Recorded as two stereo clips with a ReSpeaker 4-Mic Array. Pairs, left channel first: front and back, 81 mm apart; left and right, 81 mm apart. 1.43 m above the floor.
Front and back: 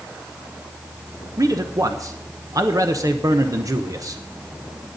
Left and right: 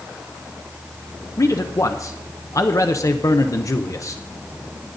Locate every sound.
1.4 s a man speaking: 135° left, 0.8 m